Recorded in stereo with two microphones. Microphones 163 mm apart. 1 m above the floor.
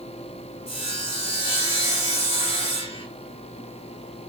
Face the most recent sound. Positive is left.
turn(degrees=35)  # may be behind; listen again after turning